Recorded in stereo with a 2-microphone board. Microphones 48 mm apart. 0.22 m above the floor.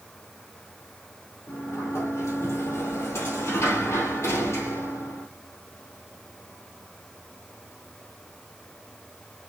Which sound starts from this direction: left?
A sliding door, at 1.5 s.